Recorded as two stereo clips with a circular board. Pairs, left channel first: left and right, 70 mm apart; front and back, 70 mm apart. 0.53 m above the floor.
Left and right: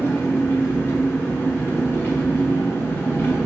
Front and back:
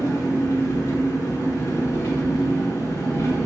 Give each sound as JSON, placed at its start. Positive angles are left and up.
{"t": 0.0, "sound": "an engine running", "azimuth_deg": 35, "distance_m": 0.8}